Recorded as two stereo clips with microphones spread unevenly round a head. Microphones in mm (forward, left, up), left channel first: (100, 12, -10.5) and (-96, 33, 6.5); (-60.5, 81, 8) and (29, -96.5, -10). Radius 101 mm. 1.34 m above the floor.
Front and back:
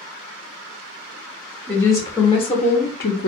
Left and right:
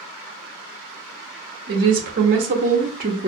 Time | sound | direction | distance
1.7 | a woman speaking | 85° right | 1.1 m